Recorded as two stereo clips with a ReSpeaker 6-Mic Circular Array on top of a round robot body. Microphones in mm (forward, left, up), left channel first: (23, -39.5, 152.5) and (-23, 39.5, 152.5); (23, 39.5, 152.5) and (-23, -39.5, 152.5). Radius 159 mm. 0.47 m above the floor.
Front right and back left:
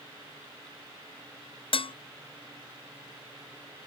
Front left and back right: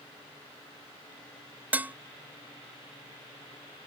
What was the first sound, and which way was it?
Dishes clattering, 45° right.